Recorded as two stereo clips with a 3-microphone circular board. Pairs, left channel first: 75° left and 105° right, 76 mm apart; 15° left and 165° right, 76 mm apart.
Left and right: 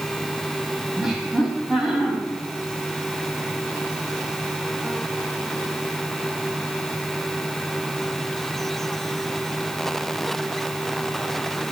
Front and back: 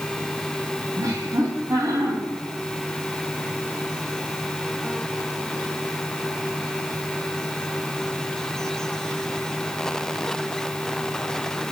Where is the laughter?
170° left, 3 m.